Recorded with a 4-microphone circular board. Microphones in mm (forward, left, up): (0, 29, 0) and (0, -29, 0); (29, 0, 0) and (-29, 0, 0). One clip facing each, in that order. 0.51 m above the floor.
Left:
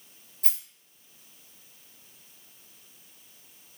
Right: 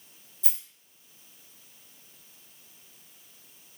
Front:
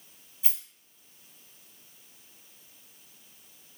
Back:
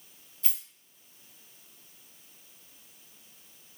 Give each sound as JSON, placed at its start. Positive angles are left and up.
{"t": 0.4, "sound": "a rattle", "azimuth_deg": 70, "distance_m": 1.4}